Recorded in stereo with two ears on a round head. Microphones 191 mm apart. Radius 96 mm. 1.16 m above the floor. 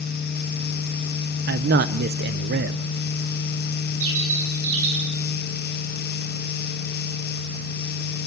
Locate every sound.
1.5 s a man speaking: 50° right (ahead or behind), 0.7 m
4.0 s a bird: 65° right (ahead or behind), 9 m